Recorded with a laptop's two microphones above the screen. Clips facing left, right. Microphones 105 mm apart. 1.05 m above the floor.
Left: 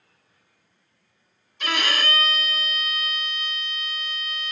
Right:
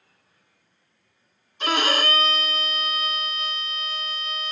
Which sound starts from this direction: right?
A violin, at 1.6 s.